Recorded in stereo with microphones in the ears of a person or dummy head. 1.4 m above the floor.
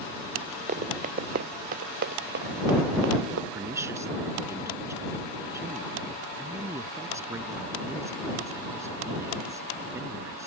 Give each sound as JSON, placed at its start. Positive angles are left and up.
{"t": 0.7, "sound": "running footsteps", "side_deg": -35}
{"t": 3.5, "sound": "a woman speaking", "side_deg": -15}